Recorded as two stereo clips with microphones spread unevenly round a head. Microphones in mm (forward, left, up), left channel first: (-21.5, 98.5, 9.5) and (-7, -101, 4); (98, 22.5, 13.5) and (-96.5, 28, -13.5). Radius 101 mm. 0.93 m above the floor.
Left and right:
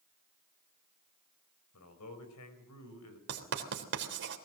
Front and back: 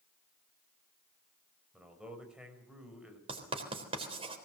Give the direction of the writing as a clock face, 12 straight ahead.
4 o'clock.